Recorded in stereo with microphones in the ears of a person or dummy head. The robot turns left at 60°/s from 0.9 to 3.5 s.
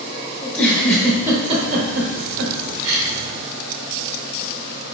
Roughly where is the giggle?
Centre.